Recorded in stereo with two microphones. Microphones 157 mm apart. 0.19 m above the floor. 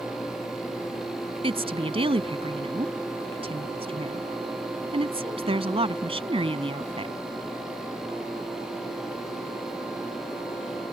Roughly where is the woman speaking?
Right.